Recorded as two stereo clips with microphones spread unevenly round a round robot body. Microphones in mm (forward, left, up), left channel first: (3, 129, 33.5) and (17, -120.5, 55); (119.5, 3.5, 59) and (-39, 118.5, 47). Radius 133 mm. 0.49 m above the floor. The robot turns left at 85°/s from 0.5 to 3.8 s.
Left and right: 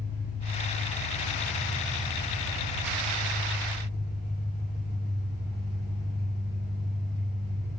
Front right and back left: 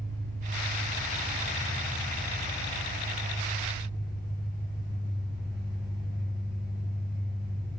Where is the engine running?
140° left, 5 m; by 7.8 s 140° right, 5 m.